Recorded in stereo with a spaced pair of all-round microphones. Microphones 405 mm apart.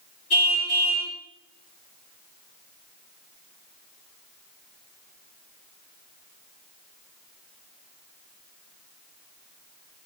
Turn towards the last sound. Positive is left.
turn(degrees=65)  # may be behind; listen again after turning